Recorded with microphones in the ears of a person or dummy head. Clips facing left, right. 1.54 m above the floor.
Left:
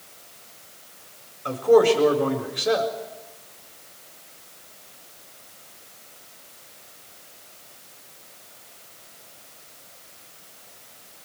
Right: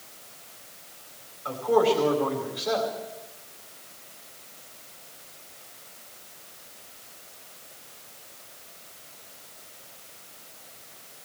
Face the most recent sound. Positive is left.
turn(degrees=55)  # may be behind; listen again after turning